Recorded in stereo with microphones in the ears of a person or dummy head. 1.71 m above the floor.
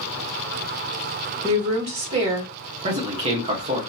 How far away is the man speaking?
About 1.3 m.